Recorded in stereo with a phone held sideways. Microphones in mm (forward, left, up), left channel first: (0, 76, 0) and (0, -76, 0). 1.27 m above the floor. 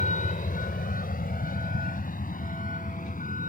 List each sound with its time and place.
0.0 s a vehicle: 60° left (ahead or behind); by 3.5 s 65° left (ahead or behind)